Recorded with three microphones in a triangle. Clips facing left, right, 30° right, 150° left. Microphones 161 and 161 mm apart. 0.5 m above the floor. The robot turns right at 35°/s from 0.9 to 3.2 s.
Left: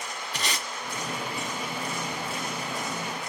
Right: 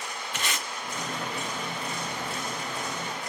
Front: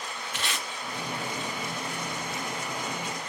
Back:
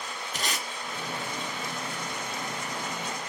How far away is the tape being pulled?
About 0.6 m.